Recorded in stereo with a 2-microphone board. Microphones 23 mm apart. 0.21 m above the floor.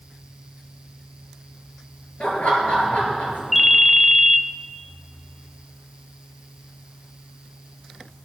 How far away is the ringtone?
About 0.5 m.